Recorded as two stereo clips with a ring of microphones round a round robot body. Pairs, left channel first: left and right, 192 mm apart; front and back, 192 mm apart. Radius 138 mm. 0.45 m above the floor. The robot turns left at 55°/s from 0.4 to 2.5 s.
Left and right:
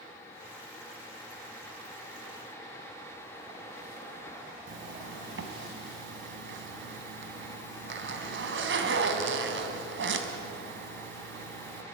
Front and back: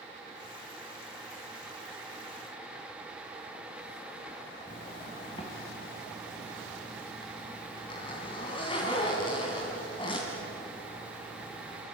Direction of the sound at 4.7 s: 70° right.